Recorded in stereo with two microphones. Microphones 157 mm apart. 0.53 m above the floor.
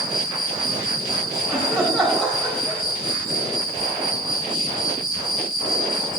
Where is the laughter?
5° left (ahead or behind), 3 m.